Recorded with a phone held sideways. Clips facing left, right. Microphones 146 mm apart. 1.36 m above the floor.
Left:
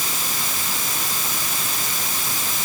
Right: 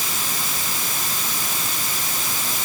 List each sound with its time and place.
Only background noise.